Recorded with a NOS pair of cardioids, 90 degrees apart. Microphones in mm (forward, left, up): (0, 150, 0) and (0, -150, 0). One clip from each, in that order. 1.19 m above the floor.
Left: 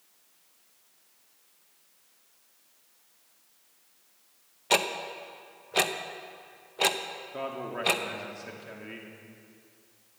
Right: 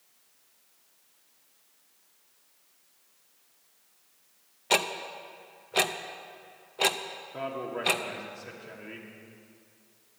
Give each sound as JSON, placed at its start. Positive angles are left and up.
{"t": 4.7, "sound": "ticking", "azimuth_deg": 0, "distance_m": 0.6}
{"t": 7.3, "sound": "a man speaking", "azimuth_deg": 10, "distance_m": 2.5}